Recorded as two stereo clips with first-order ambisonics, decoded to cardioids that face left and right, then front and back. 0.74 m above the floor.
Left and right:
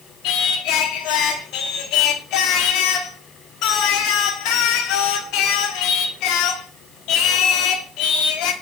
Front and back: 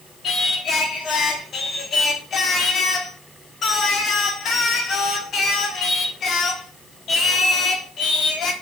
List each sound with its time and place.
0.2 s singing: 60° left, 0.9 m